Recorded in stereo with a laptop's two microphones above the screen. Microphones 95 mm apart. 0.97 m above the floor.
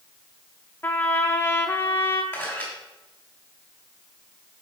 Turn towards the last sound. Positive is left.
turn(degrees=15)  # may be behind; listen again after turning